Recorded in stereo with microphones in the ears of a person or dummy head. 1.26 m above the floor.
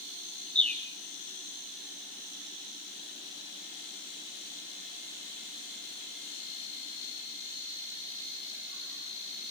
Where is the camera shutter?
No camera shutter in this recording.